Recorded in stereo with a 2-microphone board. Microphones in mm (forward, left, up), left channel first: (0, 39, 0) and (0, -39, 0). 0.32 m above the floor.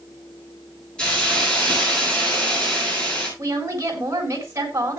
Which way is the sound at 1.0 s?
10° left (ahead or behind).